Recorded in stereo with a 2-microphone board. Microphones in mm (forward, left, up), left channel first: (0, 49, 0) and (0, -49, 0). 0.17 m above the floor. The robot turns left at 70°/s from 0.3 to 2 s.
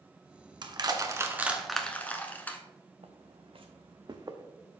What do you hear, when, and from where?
0.6 s crushing: 50° right (ahead or behind), 0.9 m; by 2.6 s 15° left (ahead or behind), 0.9 m
3.0 s footsteps: 80° right, 1.0 m; by 4.5 s 35° right (ahead or behind), 0.9 m